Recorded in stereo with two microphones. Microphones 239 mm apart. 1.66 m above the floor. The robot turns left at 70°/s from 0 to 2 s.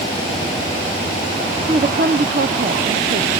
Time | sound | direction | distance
1.7 | a woman speaking | 30° right (ahead or behind) | 0.8 m